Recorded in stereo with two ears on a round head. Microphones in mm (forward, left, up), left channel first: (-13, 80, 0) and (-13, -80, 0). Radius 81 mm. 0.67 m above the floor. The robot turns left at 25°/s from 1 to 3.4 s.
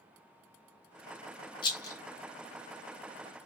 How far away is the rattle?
About 0.7 m.